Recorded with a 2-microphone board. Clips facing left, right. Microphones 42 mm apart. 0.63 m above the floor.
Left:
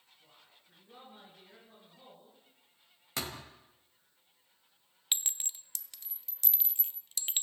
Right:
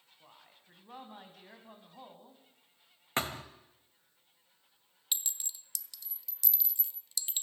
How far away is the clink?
About 0.5 m.